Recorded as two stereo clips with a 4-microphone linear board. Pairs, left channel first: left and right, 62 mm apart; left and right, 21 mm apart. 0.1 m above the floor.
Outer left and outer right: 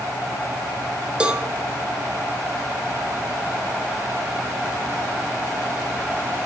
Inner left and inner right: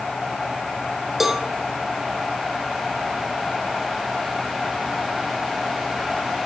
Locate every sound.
1.2 s a cowbell: 15° right (ahead or behind), 1.1 m